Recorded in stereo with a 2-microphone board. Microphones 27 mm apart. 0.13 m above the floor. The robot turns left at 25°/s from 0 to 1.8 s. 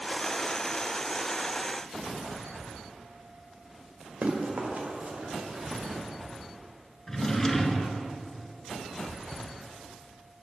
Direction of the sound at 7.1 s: 20° left (ahead or behind).